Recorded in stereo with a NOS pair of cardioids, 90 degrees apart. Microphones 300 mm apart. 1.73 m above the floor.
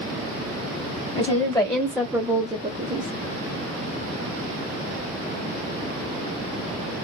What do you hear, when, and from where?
1.1 s a woman speaking: 20° left, 1.3 m; by 3.1 s 45° right, 0.7 m